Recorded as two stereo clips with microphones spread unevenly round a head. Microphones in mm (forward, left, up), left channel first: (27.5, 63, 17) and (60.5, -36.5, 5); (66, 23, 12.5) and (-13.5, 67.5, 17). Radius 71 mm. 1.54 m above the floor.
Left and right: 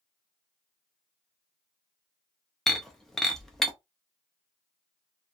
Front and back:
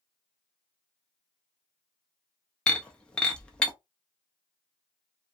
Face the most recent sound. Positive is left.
turn(degrees=45)